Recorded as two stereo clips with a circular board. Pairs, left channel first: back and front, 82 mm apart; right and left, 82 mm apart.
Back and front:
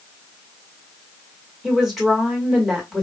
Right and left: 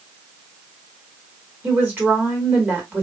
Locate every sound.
1.6 s a woman speaking: 85° left, 1.4 m